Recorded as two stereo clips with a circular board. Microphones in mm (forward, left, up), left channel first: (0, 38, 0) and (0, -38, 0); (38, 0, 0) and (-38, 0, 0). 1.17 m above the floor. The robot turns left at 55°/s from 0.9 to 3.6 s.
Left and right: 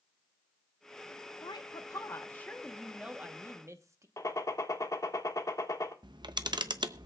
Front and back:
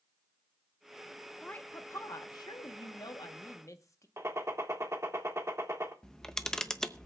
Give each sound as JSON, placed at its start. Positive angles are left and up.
{"t": 1.4, "sound": "a woman speaking", "azimuth_deg": 75, "distance_m": 1.0}
{"t": 4.2, "sound": "a gunshot", "azimuth_deg": 130, "distance_m": 1.5}
{"t": 6.0, "sound": "a camera shutter", "azimuth_deg": -80, "distance_m": 0.6}